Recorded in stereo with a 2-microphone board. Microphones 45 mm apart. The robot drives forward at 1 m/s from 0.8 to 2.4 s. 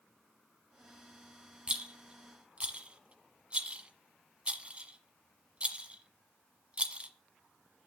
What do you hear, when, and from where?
1.7 s a rattle: 25° right (ahead or behind), 1.2 m